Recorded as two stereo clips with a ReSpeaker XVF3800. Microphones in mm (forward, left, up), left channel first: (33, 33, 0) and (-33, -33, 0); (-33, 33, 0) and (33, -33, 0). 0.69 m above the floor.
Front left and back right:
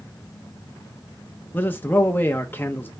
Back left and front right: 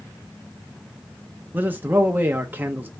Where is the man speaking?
Straight ahead, 0.5 m.